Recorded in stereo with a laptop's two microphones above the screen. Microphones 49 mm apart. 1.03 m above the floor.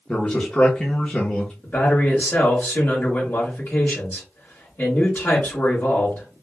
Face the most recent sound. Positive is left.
turn(degrees=50)  # may be behind; listen again after turning